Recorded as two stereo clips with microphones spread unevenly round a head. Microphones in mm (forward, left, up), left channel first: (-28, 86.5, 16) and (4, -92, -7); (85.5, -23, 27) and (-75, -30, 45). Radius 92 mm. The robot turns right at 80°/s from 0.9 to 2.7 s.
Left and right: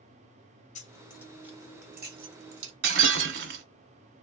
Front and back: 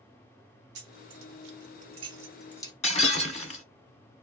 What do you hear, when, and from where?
0.8 s keys jangling: 155° left, 0.9 m; by 2.7 s 65° right, 0.9 m
2.8 s breaking glass: 50° right, 1.2 m